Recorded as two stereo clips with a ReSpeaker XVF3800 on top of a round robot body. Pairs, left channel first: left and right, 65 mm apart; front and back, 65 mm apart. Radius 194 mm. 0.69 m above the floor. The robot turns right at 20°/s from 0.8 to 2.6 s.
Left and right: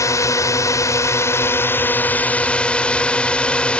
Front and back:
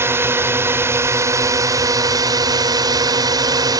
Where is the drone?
130° left; by 3.8 s 165° left.